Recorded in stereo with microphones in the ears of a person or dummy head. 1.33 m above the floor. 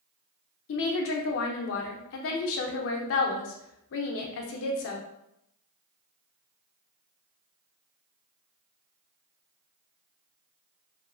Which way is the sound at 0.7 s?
70° left (ahead or behind).